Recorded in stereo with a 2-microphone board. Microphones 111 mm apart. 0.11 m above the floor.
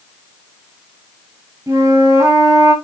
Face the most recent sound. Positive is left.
turn(degrees=-30)  # may be behind; listen again after turning